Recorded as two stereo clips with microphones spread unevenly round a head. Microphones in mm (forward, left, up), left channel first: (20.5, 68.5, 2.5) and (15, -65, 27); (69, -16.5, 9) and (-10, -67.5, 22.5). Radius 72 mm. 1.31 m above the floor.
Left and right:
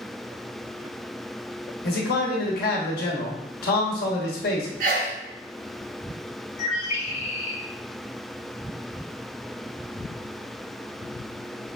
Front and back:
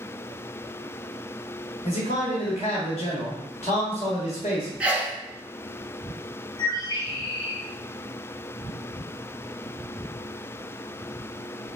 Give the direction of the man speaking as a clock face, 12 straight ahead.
9 o'clock.